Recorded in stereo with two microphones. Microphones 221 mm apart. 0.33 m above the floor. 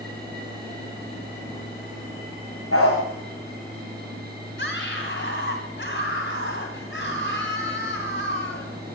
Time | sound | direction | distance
2.7 | a dog barking | 85° left | 8.5 m
4.6 | a scream | 55° left (ahead or behind) | 2.5 m